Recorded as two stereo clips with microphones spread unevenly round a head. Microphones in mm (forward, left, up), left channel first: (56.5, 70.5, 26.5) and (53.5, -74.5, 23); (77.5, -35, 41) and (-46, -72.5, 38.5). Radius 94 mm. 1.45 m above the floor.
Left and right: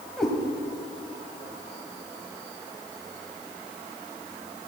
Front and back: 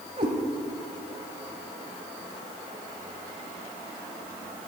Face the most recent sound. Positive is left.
turn(degrees=175)